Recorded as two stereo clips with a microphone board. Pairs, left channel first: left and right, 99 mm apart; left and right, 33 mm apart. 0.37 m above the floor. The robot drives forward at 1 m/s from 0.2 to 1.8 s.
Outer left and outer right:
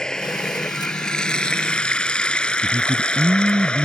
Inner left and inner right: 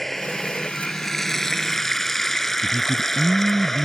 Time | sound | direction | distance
0.0 | running water | 5° left (ahead or behind) | ?
2.6 | a man speaking | 35° right (ahead or behind) | ?